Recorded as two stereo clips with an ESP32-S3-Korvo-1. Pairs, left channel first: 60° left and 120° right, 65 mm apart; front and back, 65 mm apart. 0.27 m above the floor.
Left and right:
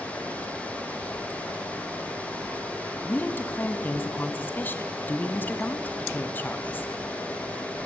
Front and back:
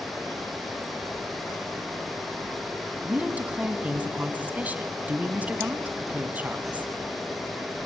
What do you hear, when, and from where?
3.0 s a woman speaking: 115° left, 1.6 m